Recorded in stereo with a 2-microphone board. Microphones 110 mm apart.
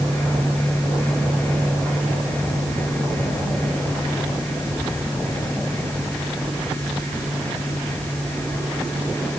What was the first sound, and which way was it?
Only background noise.